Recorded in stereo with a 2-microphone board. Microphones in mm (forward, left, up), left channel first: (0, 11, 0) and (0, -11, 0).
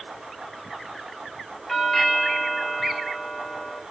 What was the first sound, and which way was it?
A doorbell, 15° left (ahead or behind).